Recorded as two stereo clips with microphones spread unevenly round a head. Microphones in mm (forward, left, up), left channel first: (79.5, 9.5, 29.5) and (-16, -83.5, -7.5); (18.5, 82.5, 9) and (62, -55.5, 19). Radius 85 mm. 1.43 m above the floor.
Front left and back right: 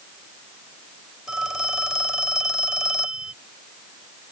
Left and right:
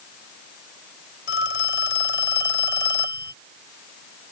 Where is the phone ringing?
130° left.